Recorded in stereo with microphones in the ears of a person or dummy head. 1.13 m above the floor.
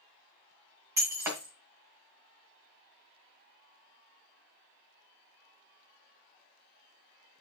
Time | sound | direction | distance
1.0 | breaking glass | 10° right (ahead or behind) | 2 m